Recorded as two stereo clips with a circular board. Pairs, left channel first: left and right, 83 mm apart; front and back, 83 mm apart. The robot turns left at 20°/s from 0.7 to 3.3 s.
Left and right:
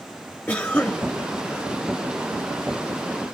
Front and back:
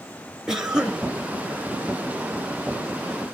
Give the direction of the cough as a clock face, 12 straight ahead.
8 o'clock.